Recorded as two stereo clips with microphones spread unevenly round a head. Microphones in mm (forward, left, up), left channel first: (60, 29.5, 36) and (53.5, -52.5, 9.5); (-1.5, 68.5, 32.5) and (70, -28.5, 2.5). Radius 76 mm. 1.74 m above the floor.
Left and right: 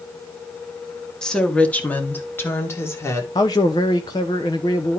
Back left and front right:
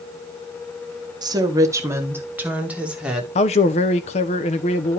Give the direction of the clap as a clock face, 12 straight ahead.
No clap in this recording.